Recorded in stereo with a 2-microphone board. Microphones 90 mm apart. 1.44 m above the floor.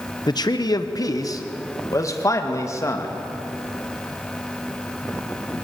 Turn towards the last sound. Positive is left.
turn(degrees=35)  # may be behind; listen again after turning